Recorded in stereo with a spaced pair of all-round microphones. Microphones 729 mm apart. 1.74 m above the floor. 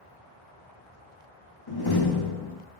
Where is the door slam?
30° left (ahead or behind), 1.4 m.